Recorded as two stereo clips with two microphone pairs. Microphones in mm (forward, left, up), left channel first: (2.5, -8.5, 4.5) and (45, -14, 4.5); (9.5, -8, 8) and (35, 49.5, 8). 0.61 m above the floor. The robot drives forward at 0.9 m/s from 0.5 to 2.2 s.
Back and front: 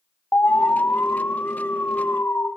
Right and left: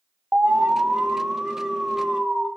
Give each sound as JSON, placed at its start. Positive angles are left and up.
{"t": 0.3, "sound": "an alarm", "azimuth_deg": 130, "distance_m": 2.5}